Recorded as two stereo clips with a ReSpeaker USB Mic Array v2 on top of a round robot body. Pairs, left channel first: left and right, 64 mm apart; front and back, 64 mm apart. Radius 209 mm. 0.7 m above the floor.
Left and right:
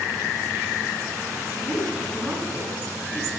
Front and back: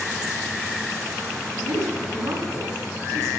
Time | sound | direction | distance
1.6 | a man speaking | 135° right | 7.5 m